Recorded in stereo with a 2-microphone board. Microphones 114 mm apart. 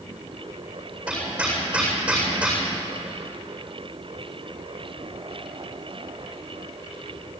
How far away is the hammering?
About 7.5 m.